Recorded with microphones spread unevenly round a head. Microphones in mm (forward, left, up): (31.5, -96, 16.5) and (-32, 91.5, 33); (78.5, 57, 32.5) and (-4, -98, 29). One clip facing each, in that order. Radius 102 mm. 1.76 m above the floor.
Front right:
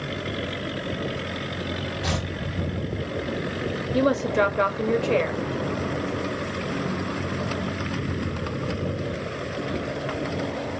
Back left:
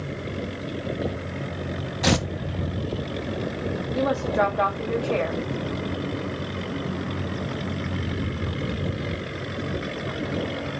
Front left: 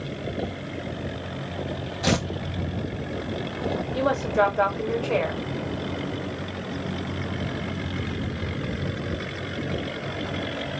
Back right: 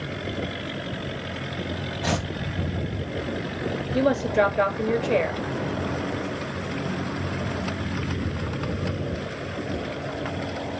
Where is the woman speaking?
50° right, 0.8 m.